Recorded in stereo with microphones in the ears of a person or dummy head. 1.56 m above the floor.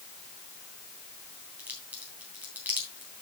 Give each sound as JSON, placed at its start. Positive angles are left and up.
{"t": 1.6, "sound": "a crack", "side_deg": -10, "distance_m": 3.0}